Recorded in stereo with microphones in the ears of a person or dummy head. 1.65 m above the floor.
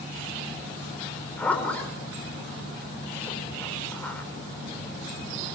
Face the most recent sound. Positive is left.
turn(degrees=10)  # may be behind; listen again after turning